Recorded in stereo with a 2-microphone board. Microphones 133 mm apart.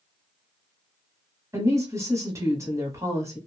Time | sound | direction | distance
1.5 | a woman speaking | 20° right (ahead or behind) | 1.4 m